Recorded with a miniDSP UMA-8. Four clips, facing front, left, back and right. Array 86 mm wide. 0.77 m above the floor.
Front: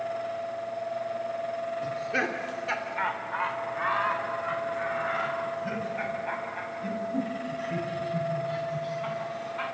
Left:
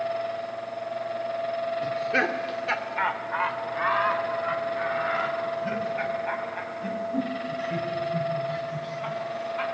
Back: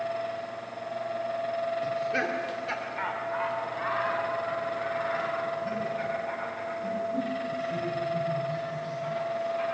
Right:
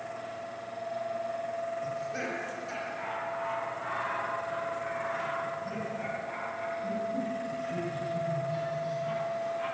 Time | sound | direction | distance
1.8 | laughter | 85° left | 2 m